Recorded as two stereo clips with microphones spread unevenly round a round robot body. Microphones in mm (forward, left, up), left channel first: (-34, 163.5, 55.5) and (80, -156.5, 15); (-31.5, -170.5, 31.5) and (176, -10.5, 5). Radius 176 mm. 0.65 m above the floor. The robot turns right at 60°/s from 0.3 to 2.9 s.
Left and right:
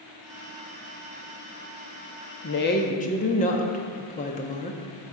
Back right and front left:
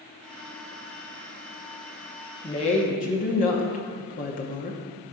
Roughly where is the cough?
No cough in this recording.